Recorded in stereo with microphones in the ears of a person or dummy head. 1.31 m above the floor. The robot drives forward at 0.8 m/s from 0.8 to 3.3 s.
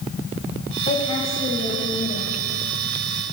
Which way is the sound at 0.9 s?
35° left (ahead or behind).